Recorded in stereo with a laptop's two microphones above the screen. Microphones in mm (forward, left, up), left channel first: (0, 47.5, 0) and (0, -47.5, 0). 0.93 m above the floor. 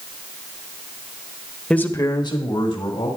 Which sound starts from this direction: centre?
A man speaking, at 1.7 s.